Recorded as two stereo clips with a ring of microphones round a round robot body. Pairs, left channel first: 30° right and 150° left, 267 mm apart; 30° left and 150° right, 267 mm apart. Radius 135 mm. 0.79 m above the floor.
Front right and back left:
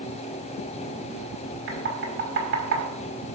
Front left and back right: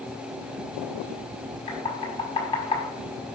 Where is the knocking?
100° left, 6 m.